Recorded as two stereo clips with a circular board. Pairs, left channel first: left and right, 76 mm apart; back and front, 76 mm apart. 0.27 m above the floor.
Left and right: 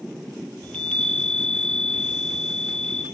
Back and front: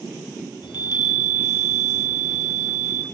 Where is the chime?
165° left, 1.1 m.